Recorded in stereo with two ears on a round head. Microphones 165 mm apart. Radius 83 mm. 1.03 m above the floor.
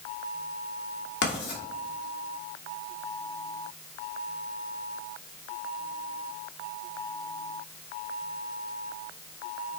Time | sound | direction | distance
1.2 | writing | 60° left (ahead or behind) | 1.8 m